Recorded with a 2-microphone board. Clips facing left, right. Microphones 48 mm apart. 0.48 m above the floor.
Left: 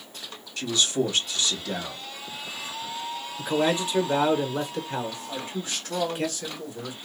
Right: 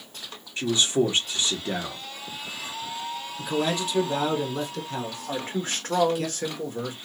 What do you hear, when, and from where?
0.6 s a man speaking: 25° right (ahead or behind), 1.1 m
3.4 s a man speaking: 25° left (ahead or behind), 1.0 m
5.3 s a man speaking: 45° right (ahead or behind), 1.1 m